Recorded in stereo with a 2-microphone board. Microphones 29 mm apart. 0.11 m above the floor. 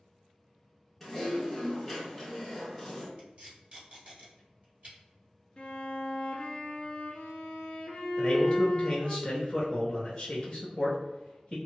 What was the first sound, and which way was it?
Typing on a keyboard, 5° left (ahead or behind).